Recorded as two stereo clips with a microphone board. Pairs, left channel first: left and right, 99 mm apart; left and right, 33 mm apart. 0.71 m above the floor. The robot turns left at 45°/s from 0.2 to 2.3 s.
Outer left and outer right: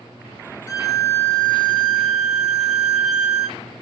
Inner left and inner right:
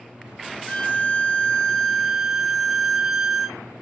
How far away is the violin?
About 0.6 m.